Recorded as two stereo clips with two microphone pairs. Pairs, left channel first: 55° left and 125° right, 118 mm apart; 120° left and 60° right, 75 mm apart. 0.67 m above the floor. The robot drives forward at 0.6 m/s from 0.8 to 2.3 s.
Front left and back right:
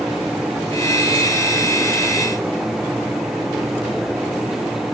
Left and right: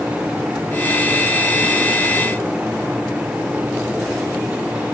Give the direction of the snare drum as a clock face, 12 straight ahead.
No snare drum in this recording.